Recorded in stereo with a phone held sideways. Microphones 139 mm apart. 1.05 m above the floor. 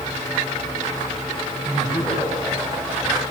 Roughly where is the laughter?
Centre.